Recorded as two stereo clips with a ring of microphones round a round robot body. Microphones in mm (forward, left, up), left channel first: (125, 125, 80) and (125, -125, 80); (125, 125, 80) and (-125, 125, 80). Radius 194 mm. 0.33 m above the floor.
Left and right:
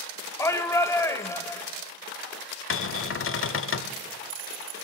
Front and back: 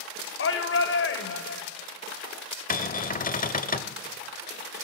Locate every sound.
0.4 s a shout: 15° left, 1.6 m
2.7 s a cupboard door: 55° left, 0.9 m